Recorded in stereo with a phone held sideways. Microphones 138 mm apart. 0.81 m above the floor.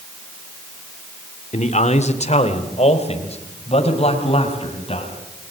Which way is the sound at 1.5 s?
55° left (ahead or behind).